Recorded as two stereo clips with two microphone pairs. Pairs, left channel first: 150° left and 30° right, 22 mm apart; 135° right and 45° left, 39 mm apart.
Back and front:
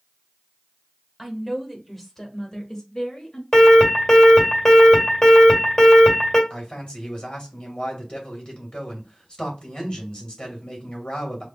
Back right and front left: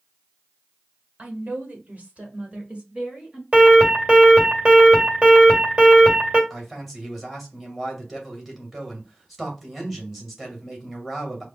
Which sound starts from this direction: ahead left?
A woman speaking, at 1.2 s.